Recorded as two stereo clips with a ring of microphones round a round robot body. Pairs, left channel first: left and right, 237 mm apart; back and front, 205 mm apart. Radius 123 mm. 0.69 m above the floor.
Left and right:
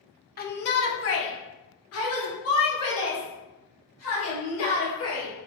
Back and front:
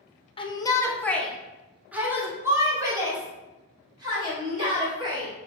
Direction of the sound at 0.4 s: 125° left.